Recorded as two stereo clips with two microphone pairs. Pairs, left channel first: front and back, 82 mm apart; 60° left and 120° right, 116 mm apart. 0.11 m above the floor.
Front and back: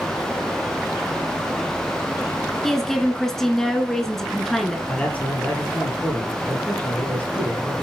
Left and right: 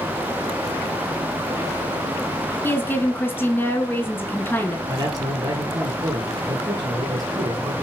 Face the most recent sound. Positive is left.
turn(degrees=-70)